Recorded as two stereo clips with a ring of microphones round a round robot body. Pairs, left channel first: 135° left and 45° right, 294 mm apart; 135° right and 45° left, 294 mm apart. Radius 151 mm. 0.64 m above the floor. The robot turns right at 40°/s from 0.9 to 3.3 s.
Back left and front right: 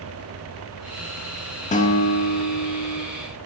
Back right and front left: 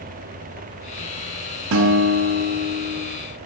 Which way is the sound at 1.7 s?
75° left.